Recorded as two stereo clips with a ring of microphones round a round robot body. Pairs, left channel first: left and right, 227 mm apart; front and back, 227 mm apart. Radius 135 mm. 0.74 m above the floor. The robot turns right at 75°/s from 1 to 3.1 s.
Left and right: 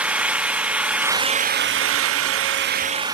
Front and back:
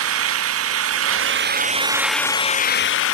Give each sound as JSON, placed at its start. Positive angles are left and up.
{"t": 0.0, "sound": "an engine running", "azimuth_deg": -175, "distance_m": 0.8}